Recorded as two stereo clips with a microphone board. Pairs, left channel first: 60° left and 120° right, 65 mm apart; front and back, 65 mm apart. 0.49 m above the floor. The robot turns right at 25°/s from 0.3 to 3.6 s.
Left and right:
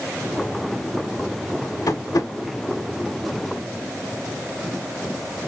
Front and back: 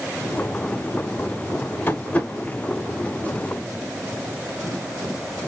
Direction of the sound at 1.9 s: 55° left.